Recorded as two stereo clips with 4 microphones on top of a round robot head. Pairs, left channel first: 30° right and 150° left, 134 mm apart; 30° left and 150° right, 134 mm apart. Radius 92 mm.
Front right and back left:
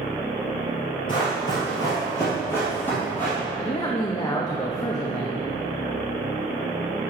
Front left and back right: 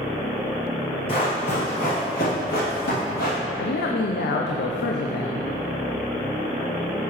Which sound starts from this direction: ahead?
Running footsteps, at 1.1 s.